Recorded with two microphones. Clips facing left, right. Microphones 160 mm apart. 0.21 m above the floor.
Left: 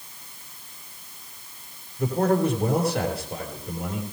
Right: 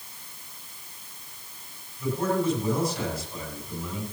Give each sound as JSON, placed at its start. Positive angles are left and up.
{"t": 2.0, "sound": "a man speaking", "side_deg": 70, "distance_m": 5.5}